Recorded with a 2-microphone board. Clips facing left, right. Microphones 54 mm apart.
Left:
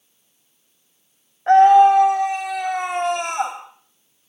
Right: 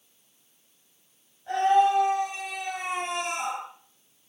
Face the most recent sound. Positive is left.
turn(degrees=60)  # may be behind; listen again after turning